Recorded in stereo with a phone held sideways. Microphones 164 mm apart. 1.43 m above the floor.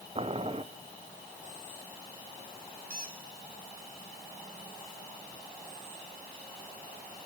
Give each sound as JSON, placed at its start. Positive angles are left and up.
{"t": 0.1, "sound": "boiling", "side_deg": -35, "distance_m": 0.8}
{"t": 2.9, "sound": "a squeak", "side_deg": -65, "distance_m": 1.7}